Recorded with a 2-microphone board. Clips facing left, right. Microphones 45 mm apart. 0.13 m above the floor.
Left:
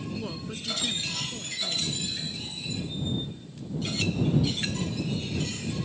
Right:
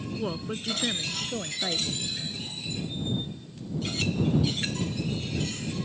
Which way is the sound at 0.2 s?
20° right (ahead or behind).